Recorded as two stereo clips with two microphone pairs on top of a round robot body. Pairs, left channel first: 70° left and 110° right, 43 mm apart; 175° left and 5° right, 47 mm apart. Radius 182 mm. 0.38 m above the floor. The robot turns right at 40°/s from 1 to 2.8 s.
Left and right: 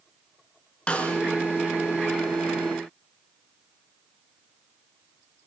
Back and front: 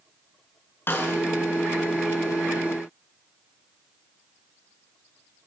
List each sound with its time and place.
0.9 s a snare drum: 130° left, 5 m; by 1.2 s 140° left, 5 m